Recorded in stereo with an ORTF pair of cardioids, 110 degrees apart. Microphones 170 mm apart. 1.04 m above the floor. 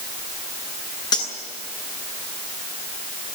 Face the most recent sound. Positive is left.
turn(degrees=25)